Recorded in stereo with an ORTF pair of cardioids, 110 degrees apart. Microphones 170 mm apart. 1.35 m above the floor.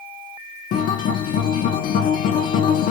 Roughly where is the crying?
No crying in this recording.